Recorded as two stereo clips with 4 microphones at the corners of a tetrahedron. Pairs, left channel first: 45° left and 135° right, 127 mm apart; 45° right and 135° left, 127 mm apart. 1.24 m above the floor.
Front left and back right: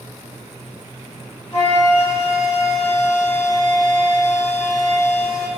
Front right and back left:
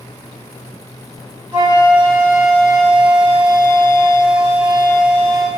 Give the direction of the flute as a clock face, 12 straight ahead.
9 o'clock.